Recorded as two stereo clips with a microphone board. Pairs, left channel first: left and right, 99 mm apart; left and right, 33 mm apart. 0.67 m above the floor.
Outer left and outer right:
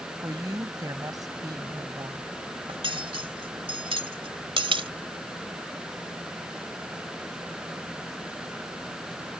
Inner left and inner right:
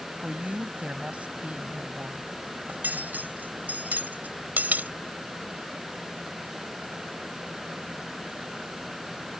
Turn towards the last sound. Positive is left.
turn(degrees=-65)  # may be behind; listen again after turning